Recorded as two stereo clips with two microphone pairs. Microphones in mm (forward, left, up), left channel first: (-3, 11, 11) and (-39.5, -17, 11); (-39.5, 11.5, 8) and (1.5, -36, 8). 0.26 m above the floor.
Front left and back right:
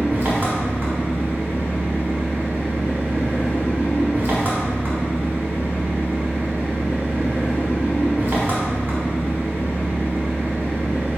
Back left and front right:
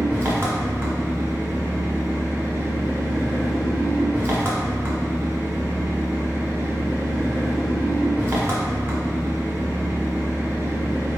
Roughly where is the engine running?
Right.